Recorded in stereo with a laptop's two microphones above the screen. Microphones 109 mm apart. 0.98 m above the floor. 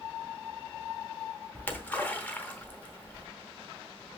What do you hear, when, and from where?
1.6 s a splash: 15° left (ahead or behind), 0.9 m